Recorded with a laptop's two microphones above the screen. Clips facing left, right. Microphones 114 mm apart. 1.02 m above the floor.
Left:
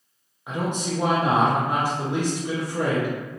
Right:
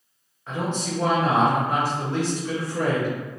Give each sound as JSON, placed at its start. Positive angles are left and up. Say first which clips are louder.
{"t": 0.5, "sound": "a man speaking", "louder": "left 1 dB", "side_deg": 15, "distance_m": 0.5}